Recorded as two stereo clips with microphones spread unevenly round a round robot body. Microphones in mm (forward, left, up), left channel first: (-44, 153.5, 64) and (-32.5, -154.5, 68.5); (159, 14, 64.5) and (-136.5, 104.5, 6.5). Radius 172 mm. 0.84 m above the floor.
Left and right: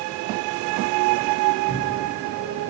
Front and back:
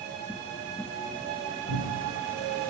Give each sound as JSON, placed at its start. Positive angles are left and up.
{"t": 1.7, "sound": "a cupboard door", "azimuth_deg": 25, "distance_m": 5.5}